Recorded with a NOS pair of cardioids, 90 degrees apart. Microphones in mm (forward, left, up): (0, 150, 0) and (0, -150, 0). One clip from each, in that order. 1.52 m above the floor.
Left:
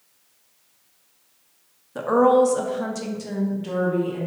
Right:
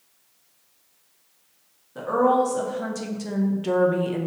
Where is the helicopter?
I don't hear a helicopter.